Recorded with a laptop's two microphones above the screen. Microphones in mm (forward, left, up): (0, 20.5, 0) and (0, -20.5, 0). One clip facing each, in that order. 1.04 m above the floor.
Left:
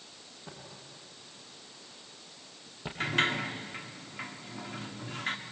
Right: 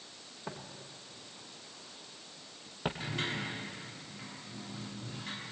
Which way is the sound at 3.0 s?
70° left (ahead or behind).